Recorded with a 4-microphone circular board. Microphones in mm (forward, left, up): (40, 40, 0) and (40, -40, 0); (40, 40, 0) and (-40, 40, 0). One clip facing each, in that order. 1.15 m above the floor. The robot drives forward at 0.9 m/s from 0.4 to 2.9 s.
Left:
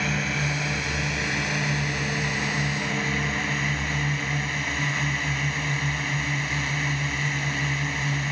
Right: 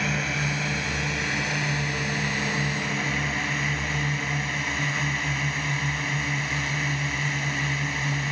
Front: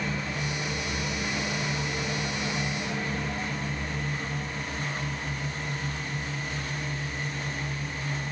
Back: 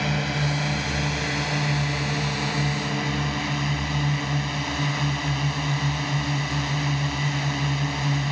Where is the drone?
Straight behind.